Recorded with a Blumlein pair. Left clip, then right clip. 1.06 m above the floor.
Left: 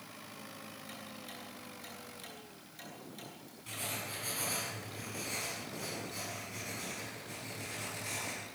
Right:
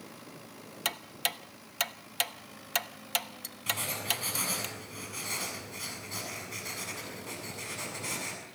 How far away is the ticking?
About 0.7 m.